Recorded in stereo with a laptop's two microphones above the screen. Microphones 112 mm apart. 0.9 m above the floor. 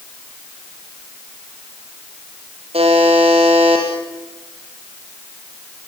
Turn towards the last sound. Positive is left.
turn(degrees=-60)  # may be behind; listen again after turning